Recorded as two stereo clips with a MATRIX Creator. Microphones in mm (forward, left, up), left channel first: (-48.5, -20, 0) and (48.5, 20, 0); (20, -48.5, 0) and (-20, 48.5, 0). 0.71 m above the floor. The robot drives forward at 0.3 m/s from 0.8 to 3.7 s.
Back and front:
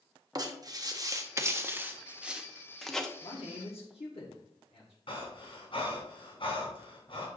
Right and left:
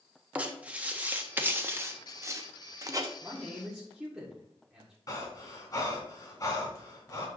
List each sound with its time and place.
0.3 s writing: 45° left, 0.9 m; by 3.1 s 120° left, 0.8 m
3.2 s a man speaking: 160° right, 1.4 m; by 5.0 s 165° right, 1.6 m
5.1 s breathing: 120° right, 2.5 m